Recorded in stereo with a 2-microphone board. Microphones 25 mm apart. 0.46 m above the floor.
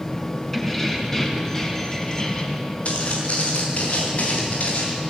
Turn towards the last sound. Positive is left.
turn(degrees=70)  # may be behind; listen again after turning